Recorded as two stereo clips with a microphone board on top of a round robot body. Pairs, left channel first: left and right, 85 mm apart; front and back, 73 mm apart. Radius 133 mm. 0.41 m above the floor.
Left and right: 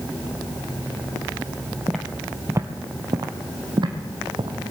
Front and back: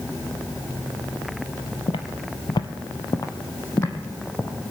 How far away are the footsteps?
About 0.7 m.